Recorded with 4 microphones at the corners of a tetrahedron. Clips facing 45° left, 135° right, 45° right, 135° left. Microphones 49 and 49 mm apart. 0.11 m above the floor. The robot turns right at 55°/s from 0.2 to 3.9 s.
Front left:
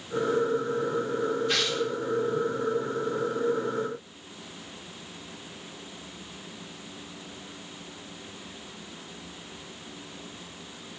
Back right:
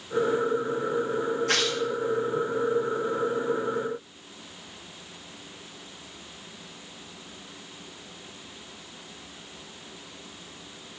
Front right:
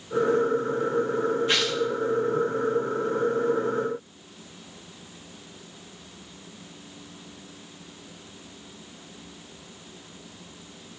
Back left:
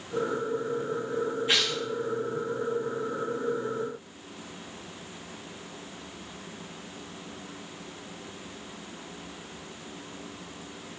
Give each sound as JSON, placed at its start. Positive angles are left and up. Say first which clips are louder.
{"t": 1.5, "sound": "tearing paper", "louder": "back right 2 dB, front right 2 dB", "azimuth_deg": -140, "distance_m": 1.7}